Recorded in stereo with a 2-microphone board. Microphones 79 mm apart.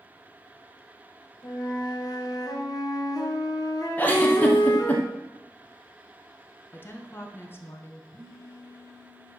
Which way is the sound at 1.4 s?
50° left (ahead or behind).